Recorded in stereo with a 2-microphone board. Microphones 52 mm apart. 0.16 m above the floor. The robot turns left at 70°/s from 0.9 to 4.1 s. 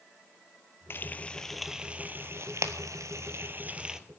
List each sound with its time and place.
0.9 s frying: 45° left (ahead or behind), 0.7 m; by 4.0 s 10° right (ahead or behind), 0.7 m